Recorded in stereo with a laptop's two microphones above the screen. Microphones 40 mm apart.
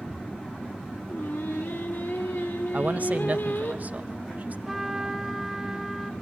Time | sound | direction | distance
1.1 | singing | 85° left | 2 m
2.7 | a man speaking | 45° right (ahead or behind) | 0.5 m
4.7 | a trumpet | 10° right (ahead or behind) | 1.1 m